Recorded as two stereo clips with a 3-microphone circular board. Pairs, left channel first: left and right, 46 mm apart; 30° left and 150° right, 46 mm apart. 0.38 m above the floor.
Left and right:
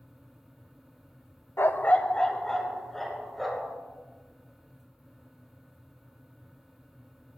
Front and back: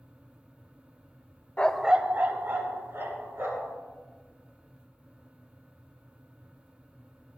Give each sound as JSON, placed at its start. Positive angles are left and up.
{"t": 1.6, "sound": "a dog barking", "azimuth_deg": 85, "distance_m": 0.5}